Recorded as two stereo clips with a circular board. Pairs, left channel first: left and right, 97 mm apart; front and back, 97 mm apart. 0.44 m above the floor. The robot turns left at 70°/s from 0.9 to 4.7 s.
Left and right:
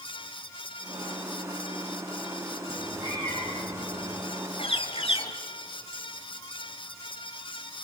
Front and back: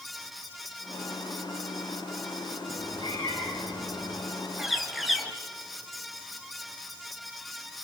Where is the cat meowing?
15° right, 9 m; by 4.2 s 120° right, 9 m.